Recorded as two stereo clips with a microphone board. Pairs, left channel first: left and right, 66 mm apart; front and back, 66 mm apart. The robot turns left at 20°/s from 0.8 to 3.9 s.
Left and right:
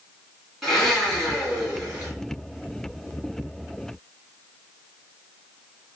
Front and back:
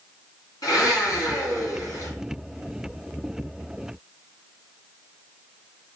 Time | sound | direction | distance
0.6 | a blender | 5° right | 2.5 m